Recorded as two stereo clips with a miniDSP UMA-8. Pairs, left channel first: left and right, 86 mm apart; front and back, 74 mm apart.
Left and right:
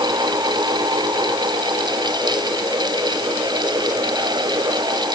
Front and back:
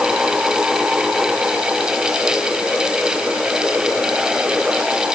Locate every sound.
Only background noise.